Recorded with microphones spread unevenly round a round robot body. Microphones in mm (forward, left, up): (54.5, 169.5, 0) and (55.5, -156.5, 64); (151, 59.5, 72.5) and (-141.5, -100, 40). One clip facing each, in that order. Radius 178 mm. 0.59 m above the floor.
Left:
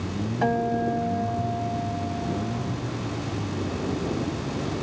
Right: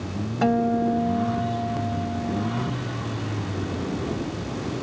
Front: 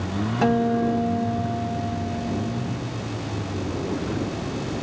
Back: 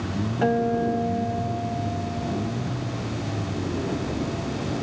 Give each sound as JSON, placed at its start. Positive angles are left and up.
{"t": 0.4, "sound": "a guitar", "azimuth_deg": -40}